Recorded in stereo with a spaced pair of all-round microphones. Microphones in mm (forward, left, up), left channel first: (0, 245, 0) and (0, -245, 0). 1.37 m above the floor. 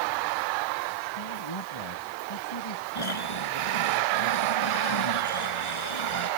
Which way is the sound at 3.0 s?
85° left.